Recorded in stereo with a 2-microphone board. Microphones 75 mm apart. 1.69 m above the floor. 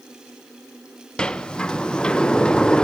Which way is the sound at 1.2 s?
10° left (ahead or behind).